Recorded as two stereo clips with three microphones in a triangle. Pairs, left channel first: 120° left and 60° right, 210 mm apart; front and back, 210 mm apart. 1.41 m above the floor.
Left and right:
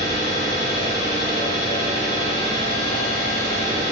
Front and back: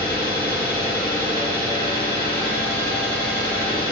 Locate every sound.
0.0 s an engine running: 175° left, 1.3 m